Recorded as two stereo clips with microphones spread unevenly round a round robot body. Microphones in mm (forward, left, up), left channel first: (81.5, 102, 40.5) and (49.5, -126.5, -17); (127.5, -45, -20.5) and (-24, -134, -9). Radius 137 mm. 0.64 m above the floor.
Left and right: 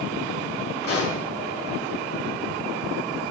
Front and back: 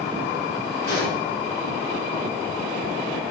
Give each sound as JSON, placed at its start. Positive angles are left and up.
{"t": 0.8, "sound": "a pop", "azimuth_deg": 55, "distance_m": 4.0}